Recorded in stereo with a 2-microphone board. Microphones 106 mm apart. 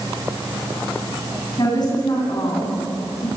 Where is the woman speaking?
40° left (ahead or behind), 9 m.